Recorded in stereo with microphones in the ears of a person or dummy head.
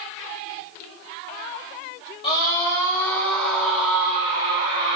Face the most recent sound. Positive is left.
turn(degrees=-40)  # may be behind; listen again after turning